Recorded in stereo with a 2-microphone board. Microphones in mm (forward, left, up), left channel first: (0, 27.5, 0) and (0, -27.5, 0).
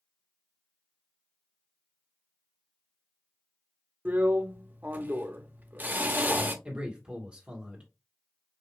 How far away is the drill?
About 0.6 m.